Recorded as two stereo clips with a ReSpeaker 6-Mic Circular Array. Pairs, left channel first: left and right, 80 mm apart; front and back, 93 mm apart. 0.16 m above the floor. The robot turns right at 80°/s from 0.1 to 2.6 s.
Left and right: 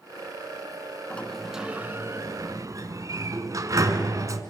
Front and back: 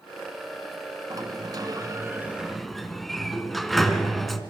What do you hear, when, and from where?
1.1 s a sliding door: 155° left, 1.4 m; by 4.4 s 85° right, 1.4 m